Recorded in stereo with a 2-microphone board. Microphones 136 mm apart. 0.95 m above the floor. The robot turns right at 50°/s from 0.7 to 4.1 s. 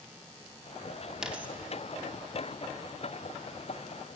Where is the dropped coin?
5° right (ahead or behind), 0.5 m; by 1.5 s 15° right (ahead or behind), 0.5 m.